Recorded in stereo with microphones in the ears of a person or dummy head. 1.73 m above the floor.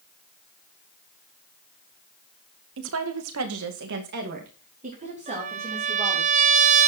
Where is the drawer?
No drawer in this recording.